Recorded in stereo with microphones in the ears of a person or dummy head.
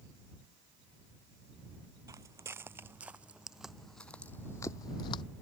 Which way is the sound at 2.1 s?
20° right (ahead or behind).